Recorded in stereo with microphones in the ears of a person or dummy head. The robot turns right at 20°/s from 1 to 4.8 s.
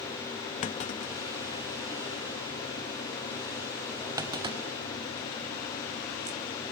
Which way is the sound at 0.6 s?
40° left (ahead or behind).